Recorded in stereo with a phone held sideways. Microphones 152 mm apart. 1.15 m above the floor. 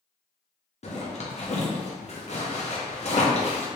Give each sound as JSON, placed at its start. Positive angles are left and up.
{"t": 0.8, "sound": "a zipper", "side_deg": 45, "distance_m": 0.7}